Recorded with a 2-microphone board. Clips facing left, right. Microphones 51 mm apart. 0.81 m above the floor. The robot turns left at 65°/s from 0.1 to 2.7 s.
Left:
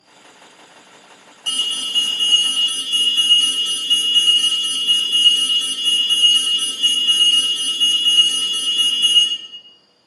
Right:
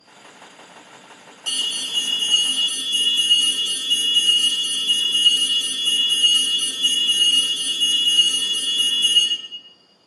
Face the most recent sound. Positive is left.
turn(degrees=60)